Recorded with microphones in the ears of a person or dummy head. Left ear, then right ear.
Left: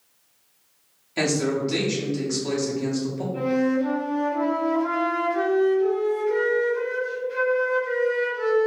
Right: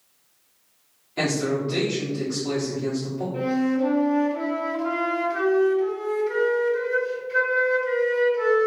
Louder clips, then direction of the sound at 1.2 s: Left 1 dB; 75° left (ahead or behind).